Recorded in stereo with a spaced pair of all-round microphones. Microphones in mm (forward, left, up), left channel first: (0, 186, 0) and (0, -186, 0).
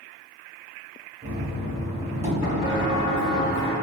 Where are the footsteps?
15° left (ahead or behind), 1.8 m; by 3.7 s 35° left (ahead or behind), 1.8 m.